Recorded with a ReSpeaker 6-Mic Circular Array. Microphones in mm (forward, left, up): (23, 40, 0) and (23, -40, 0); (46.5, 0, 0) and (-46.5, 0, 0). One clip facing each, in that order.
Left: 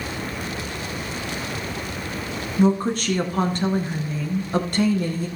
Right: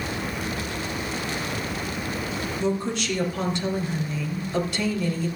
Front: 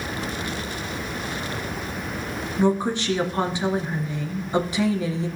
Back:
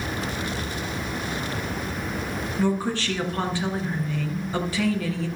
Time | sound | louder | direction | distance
2.6 | a woman speaking | left 8 dB, front 4 dB | 65° left | 1.8 m